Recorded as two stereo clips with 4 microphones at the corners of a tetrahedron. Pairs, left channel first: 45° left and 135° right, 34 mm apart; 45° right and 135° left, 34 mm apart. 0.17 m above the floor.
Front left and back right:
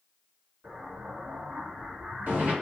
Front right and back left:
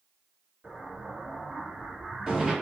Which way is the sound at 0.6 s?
155° right.